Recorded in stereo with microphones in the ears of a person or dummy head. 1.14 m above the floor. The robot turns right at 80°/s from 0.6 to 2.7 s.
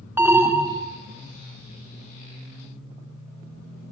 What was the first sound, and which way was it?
An alarm, 10° right (ahead or behind).